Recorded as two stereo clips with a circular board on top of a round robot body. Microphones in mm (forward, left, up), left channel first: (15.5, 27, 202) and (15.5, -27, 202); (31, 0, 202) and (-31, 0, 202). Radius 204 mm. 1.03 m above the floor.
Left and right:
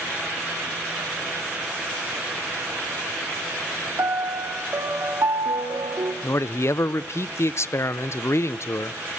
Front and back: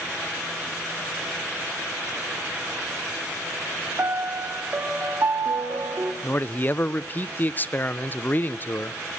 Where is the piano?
125° right, 1.7 m.